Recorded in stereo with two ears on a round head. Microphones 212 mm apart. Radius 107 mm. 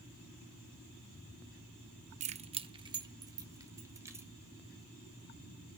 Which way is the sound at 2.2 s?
30° right (ahead or behind).